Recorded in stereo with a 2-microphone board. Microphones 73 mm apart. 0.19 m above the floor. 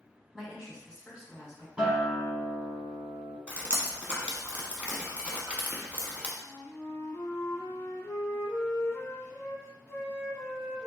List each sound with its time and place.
0.3 s a woman speaking: 10° right (ahead or behind), 1.3 m
1.8 s a guitar: 15° right (ahead or behind), 1.0 m
3.5 s dripping: 20° right (ahead or behind), 0.7 m
6.4 s a flute: 35° left (ahead or behind), 0.6 m